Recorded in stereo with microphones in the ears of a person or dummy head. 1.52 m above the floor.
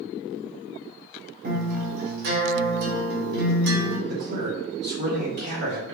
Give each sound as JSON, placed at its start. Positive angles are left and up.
{"t": 1.4, "sound": "a guitar", "side_deg": -60, "distance_m": 1.7}
{"t": 4.1, "sound": "a man speaking", "side_deg": -60, "distance_m": 2.0}